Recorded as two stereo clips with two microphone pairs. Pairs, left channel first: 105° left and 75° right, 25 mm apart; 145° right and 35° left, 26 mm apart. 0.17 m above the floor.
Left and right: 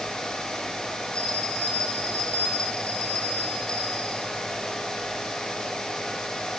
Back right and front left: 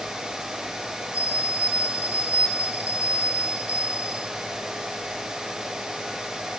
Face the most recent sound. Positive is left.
turn(degrees=55)